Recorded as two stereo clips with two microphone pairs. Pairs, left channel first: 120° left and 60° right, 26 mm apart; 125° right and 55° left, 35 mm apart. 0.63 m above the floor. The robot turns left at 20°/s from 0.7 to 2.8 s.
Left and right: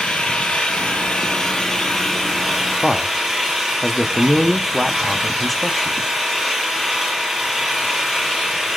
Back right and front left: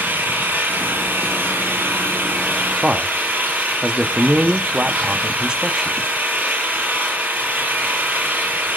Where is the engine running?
60° left, 7.5 m; by 8.8 s 15° left, 7.5 m.